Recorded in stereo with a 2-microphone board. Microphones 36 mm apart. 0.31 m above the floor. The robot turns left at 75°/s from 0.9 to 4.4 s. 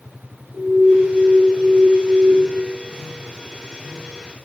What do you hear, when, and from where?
0.5 s an alarm: 50° left, 4 m; by 2.3 s 55° right, 4 m